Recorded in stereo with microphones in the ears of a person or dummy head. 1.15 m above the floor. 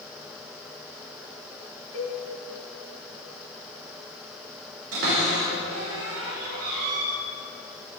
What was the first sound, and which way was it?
A cowbell, 50° left (ahead or behind).